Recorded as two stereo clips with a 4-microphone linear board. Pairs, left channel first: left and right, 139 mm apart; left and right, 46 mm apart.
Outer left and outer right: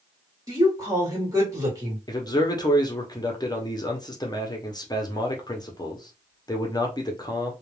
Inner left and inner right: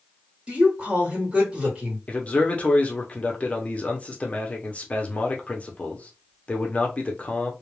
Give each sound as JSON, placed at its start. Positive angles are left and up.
{"t": 0.5, "sound": "a woman speaking", "side_deg": -25, "distance_m": 1.8}
{"t": 2.1, "sound": "a man speaking", "side_deg": 30, "distance_m": 0.7}